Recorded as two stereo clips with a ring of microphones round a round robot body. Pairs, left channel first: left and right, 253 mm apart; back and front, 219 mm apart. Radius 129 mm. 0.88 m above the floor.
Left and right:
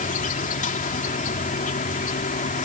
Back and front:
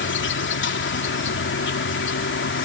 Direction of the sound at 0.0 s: 150° left.